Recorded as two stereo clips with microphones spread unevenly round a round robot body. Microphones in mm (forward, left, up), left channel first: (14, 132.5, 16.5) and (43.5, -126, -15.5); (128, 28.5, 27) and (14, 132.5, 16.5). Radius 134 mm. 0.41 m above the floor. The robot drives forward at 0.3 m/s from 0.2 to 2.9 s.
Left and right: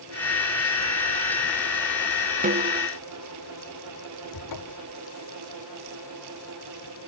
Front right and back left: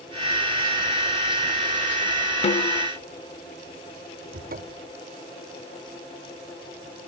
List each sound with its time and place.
2.4 s a snare drum: 60° right; by 2.9 s 75° right
4.3 s a cupboard door: 115° left